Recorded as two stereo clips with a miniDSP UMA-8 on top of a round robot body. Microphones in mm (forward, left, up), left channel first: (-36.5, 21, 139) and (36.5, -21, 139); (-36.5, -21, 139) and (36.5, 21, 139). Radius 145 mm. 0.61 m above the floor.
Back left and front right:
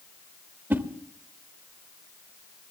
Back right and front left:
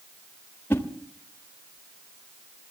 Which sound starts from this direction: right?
A whoosh, at 0.7 s.